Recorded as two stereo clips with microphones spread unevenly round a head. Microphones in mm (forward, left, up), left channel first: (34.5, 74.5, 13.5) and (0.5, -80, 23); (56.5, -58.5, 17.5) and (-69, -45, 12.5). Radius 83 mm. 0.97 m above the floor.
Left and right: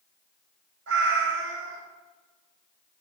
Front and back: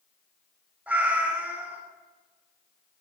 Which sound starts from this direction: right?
A cat meowing, at 0.9 s.